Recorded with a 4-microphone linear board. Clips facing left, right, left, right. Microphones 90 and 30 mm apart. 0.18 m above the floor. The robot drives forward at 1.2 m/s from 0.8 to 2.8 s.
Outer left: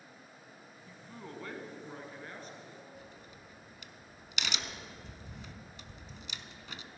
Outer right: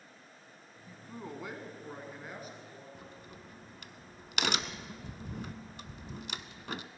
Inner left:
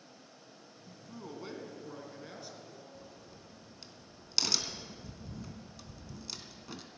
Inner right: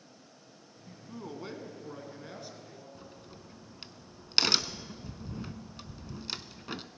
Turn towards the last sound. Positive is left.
turn(degrees=-50)  # may be behind; listen again after turning